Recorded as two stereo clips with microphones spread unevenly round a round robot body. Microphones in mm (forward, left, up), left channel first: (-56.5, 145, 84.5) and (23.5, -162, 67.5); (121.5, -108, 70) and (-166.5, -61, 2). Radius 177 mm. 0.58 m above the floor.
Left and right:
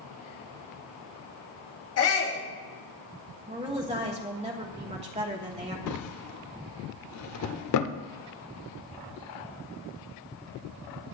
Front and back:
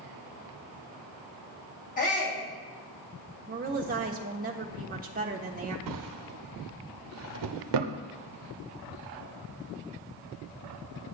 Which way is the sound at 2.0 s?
60° left.